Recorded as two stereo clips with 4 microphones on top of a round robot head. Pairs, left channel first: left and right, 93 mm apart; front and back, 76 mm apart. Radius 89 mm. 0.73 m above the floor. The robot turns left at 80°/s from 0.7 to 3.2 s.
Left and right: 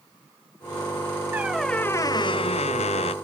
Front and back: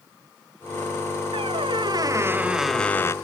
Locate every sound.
1.3 s a squeak: 160° right; by 3.1 s 55° left